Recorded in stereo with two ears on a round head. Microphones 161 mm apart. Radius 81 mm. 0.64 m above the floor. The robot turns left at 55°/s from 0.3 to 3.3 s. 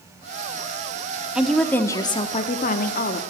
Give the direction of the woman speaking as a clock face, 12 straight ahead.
6 o'clock.